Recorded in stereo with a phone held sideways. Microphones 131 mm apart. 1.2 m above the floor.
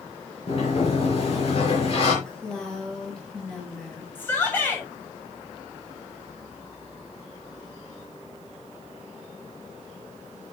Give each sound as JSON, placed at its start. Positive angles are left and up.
{"t": 0.5, "sound": "a sliding door", "side_deg": 50, "distance_m": 5.0}
{"t": 2.2, "sound": "a woman speaking", "side_deg": 5, "distance_m": 6.0}
{"t": 4.2, "sound": "a shout", "side_deg": 15, "distance_m": 7.0}